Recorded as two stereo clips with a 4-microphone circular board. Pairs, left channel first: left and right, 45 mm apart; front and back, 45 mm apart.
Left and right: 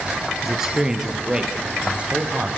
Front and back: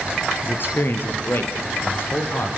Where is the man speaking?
10° right, 2.5 m; by 2.5 s 30° right, 4 m.